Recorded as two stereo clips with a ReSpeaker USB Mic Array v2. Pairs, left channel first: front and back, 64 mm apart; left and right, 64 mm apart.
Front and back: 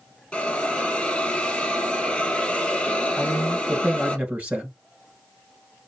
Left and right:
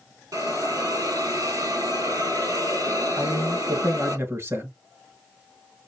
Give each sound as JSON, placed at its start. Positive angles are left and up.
{"t": 0.3, "sound": "a hiss", "azimuth_deg": -75, "distance_m": 2.5}
{"t": 3.2, "sound": "a man speaking", "azimuth_deg": -120, "distance_m": 2.5}